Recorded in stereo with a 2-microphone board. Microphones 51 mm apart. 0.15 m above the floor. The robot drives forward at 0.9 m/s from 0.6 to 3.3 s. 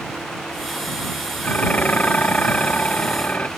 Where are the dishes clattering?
35° left (ahead or behind); by 3.5 s 30° left (ahead or behind).